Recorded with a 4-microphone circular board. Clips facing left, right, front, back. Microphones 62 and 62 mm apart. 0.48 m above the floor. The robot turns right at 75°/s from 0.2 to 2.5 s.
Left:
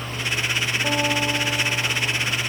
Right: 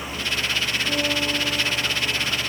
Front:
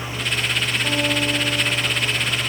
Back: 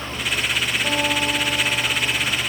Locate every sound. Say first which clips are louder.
0.8 s a guitar: left 3 dB, front 1 dB; 110° left, 1.8 m; by 2.4 s 135° right, 1.8 m